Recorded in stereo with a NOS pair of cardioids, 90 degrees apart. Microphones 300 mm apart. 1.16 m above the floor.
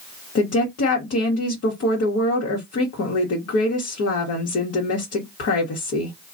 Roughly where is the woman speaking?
Ahead left.